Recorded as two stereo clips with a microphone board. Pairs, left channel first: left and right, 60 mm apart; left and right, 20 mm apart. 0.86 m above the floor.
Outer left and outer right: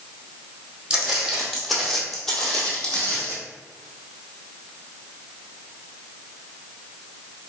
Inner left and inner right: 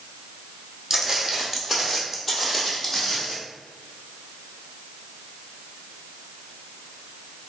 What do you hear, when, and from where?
0.9 s footsteps: 15° right (ahead or behind), 1.8 m; by 3.4 s 30° left (ahead or behind), 2 m